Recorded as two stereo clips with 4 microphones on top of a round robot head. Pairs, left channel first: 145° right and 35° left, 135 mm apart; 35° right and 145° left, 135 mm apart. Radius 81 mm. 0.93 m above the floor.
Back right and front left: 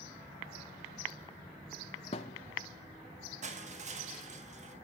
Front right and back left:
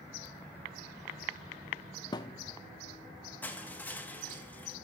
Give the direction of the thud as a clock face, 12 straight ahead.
3 o'clock.